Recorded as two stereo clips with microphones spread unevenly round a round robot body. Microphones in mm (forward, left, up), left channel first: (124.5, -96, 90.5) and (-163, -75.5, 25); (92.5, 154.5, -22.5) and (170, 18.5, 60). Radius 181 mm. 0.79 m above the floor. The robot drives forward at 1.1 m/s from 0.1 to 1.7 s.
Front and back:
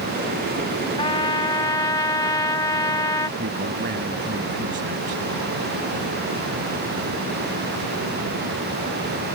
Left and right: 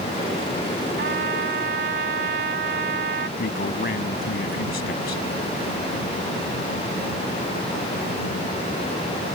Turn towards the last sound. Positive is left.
turn(degrees=110)